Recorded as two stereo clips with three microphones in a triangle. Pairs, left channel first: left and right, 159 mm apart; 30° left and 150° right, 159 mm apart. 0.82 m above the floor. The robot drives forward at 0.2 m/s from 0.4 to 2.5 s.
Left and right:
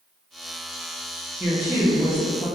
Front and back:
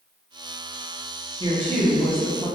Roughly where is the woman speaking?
Behind.